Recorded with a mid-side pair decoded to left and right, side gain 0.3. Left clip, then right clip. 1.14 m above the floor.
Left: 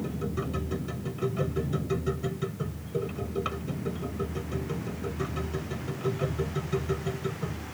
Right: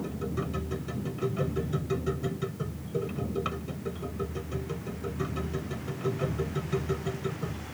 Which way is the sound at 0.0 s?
5° right.